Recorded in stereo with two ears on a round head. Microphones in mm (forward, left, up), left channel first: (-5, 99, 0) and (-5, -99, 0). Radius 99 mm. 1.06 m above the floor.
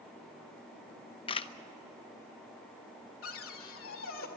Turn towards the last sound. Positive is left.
turn(degrees=65)  # may be behind; listen again after turning